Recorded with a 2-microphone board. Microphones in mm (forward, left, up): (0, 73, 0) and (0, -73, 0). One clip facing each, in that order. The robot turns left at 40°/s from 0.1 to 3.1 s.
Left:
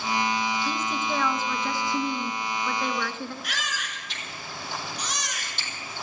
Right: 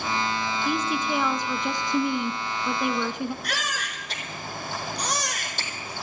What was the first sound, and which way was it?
A woman speaking, 10° right (ahead or behind).